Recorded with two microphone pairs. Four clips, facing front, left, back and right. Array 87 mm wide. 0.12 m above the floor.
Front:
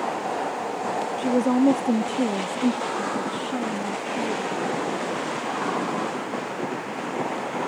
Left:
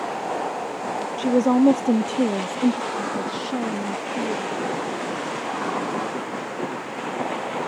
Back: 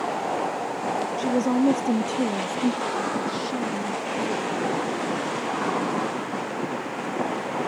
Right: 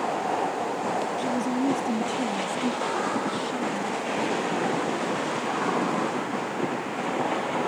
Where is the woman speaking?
75° left.